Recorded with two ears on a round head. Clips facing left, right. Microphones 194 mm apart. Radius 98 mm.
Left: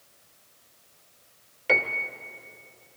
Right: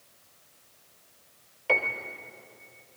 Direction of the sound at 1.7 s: 20° left (ahead or behind).